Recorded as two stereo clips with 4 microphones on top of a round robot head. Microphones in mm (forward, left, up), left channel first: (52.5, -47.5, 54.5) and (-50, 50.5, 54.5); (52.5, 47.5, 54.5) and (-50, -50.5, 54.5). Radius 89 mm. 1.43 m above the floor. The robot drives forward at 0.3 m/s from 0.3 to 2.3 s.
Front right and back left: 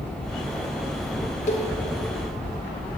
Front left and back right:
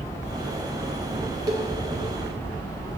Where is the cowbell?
75° right, 0.7 m; by 1.7 s 80° right, 0.7 m.